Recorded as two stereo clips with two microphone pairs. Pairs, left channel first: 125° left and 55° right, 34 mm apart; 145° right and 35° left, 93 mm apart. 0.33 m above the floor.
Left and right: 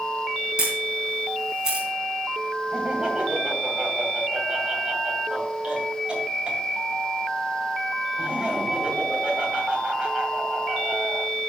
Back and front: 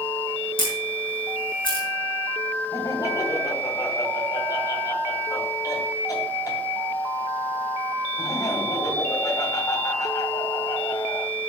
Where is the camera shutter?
125° right, 4 m.